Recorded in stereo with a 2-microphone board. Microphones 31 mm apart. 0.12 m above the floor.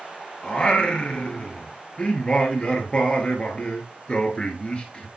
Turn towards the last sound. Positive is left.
turn(degrees=30)  # may be behind; listen again after turning